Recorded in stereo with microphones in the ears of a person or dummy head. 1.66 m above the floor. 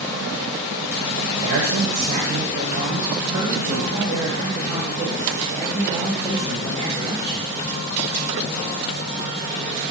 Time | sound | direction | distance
1.3 | a man speaking | 50° right (ahead or behind) | 1.2 m